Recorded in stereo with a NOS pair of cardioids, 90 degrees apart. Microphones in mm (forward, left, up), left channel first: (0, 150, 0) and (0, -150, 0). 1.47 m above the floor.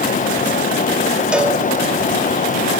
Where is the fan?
25° left, 0.9 m.